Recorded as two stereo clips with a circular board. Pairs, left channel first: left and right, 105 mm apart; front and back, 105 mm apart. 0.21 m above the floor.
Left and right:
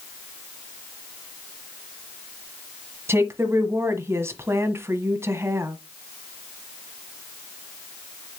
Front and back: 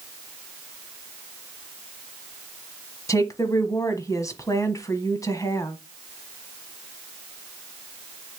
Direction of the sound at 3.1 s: 40° right.